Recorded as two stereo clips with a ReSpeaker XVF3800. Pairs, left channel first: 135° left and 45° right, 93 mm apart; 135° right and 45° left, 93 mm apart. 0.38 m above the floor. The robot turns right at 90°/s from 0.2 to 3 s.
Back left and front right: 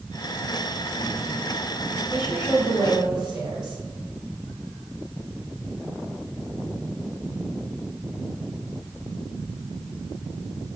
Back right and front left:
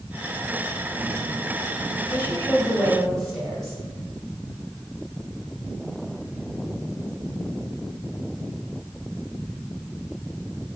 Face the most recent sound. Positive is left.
turn(degrees=-50)